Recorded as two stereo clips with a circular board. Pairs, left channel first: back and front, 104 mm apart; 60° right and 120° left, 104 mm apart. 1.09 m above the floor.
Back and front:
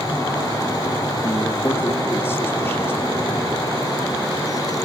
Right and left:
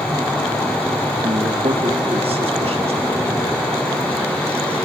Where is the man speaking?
115° left, 1.0 m.